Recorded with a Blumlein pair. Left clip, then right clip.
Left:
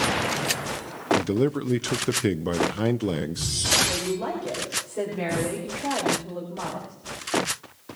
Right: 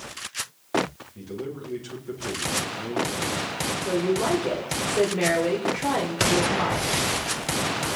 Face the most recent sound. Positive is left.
turn(degrees=-65)